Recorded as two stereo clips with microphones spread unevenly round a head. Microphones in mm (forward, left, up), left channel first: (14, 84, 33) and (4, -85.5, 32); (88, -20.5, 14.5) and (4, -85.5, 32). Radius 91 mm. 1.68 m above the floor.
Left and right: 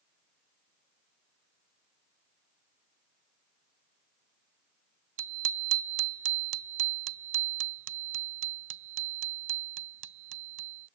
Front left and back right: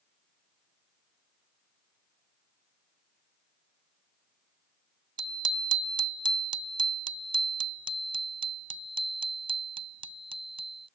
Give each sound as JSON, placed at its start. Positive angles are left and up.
{"t": 5.2, "sound": "a bicycle bell", "azimuth_deg": -105}